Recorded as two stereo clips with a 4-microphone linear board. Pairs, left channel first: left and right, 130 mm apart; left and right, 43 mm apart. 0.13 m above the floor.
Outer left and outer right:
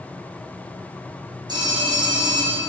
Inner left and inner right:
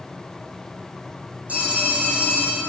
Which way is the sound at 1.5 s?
35° right (ahead or behind).